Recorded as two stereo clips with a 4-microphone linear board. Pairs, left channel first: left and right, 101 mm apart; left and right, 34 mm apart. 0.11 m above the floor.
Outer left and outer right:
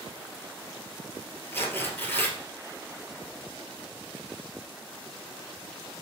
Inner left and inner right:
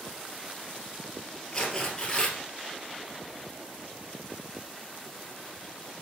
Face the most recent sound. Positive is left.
turn(degrees=20)  # may be behind; listen again after turning